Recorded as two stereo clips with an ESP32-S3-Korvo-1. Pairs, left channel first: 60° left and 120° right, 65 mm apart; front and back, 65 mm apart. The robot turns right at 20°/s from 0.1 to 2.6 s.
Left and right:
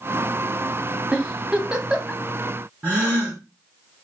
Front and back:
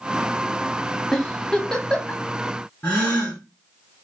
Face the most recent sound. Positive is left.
turn(degrees=-65)